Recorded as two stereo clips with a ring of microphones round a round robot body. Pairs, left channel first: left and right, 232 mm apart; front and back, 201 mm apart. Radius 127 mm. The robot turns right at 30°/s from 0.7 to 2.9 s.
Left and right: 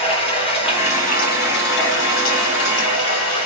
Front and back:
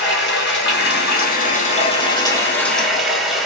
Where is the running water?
25° left, 1.5 m; by 3.5 s 90° left, 1.5 m.